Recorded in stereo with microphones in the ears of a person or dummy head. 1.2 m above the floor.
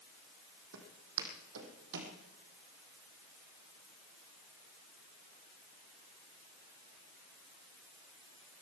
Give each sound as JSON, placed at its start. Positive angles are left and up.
{"t": 0.7, "sound": "footsteps", "side_deg": -70, "distance_m": 3.5}